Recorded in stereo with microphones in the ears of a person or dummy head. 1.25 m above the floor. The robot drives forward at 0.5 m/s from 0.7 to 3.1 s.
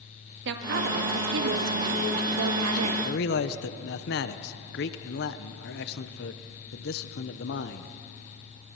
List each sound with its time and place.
0.5 s a woman speaking: 60° right (ahead or behind), 2.5 m; by 2.9 s 80° right, 2 m
3.0 s a man speaking: 50° left (ahead or behind), 0.9 m; by 7.9 s 55° left (ahead or behind), 0.9 m